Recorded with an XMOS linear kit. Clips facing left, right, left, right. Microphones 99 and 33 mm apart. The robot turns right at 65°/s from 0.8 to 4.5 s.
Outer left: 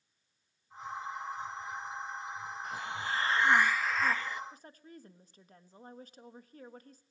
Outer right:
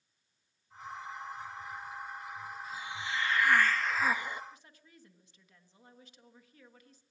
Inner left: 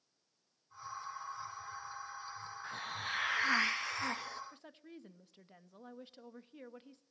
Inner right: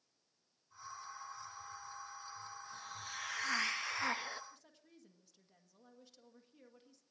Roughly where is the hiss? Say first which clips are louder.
Outer left 4 dB, inner left 7 dB; left.